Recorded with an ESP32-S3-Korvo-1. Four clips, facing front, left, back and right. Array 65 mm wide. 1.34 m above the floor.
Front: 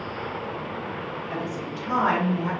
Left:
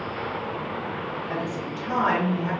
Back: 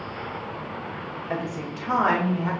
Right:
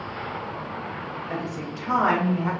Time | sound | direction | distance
1.3 | a woman speaking | 175° left | 0.6 m